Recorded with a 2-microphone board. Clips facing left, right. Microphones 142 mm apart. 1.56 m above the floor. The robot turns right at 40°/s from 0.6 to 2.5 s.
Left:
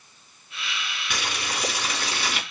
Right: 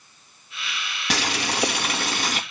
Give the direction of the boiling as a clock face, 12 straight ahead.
3 o'clock.